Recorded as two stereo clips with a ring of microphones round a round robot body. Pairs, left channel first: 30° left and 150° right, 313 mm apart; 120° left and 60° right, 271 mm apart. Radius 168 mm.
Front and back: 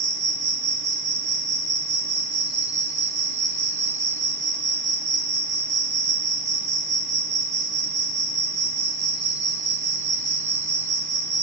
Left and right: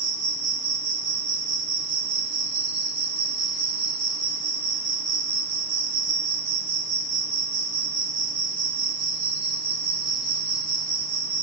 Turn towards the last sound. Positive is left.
turn(degrees=-95)